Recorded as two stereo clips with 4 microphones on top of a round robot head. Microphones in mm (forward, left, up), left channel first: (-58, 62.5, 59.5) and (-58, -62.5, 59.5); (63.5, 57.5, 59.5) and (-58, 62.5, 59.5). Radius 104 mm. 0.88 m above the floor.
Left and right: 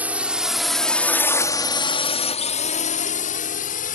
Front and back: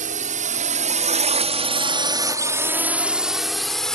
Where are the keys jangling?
I don't hear keys jangling.